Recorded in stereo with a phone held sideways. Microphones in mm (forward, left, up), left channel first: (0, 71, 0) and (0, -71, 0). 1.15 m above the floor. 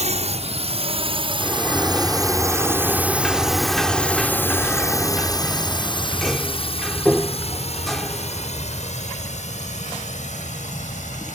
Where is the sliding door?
Centre (ahead or behind).